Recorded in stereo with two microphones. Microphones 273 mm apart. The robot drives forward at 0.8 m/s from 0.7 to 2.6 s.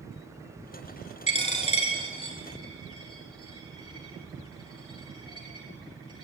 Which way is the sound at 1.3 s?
25° left (ahead or behind).